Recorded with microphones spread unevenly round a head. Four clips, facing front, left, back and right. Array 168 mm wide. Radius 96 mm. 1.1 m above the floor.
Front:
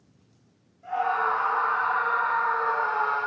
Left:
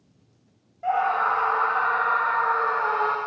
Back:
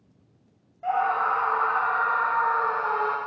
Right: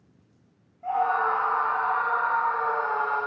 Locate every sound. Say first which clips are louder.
0.8 s a scream: left 2 dB, back 2 dB; 120° left, 8 m; by 3.2 s 100° left, 7 m